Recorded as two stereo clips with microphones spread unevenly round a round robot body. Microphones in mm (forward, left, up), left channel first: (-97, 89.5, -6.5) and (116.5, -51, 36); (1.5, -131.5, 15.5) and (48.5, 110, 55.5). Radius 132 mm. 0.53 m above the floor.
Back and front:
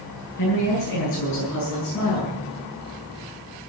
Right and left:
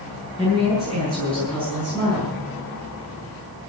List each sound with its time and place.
0.4 s a woman speaking: 165° left, 7.5 m; by 2.4 s 175° right, 7 m